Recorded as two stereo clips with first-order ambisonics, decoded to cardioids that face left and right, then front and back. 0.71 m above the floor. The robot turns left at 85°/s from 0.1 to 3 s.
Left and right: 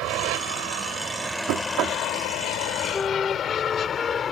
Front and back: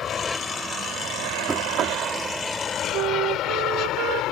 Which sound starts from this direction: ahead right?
An aircraft, at 0.0 s.